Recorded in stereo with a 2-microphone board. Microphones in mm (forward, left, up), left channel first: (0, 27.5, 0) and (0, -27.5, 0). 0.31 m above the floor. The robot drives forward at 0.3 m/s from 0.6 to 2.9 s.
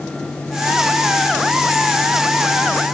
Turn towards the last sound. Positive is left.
No sound to turn to.